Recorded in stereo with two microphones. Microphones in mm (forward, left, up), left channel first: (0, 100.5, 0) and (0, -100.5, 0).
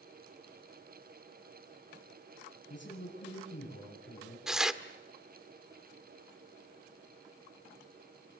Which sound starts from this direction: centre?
Tearing paper, at 4.5 s.